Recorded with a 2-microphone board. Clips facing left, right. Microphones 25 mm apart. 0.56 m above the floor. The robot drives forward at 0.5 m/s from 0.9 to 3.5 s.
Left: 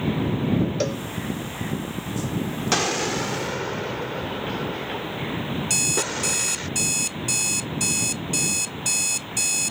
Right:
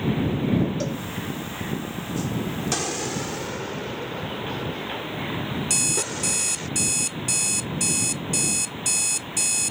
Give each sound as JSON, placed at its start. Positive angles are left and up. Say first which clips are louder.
{"t": 0.8, "sound": "a cowbell", "louder": "left 3 dB", "side_deg": 40}
{"t": 2.7, "sound": "an explosion", "louder": "left 7 dB", "side_deg": 30}
{"t": 5.7, "sound": "an alarm clock", "louder": "left 2 dB", "side_deg": 10}